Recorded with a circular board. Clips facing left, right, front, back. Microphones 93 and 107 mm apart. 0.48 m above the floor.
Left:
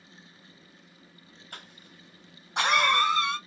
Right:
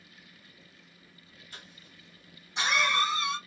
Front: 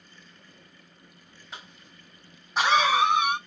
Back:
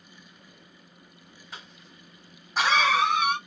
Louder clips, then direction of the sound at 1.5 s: Left 4 dB, front 1 dB; 90° left.